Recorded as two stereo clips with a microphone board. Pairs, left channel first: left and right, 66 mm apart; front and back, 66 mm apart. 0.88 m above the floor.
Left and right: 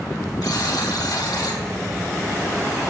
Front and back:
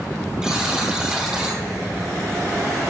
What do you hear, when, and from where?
0.4 s a buzzer: 100° left, 3 m